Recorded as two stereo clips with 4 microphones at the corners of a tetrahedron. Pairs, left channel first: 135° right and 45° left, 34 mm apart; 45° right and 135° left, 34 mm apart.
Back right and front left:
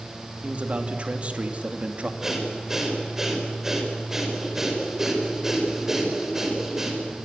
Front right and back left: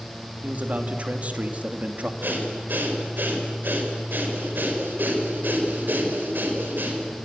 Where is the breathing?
120° left, 5 m.